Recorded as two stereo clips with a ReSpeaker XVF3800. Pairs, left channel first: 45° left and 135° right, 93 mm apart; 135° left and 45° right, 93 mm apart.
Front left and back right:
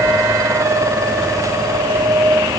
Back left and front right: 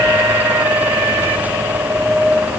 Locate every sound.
Only background noise.